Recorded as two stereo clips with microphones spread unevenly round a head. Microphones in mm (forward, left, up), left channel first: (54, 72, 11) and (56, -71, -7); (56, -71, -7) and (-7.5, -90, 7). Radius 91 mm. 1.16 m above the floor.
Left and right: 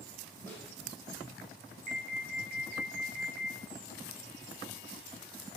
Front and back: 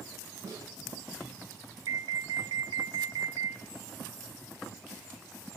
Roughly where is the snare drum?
Behind.